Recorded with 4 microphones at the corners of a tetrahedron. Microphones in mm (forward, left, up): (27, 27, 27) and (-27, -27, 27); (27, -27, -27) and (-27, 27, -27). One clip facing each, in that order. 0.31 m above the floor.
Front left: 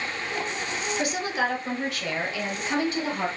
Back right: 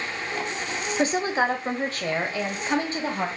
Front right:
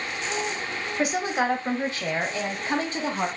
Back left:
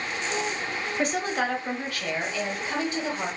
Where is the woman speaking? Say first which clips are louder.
Back right 5 dB, front right 2 dB; 130° right, 1.0 m; by 3.3 s 85° right, 1.8 m.